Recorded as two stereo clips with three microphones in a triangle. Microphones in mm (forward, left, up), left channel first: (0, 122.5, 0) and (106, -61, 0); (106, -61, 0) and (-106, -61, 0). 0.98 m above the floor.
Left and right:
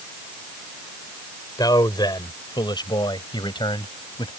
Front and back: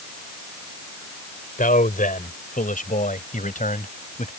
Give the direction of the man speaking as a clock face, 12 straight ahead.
10 o'clock.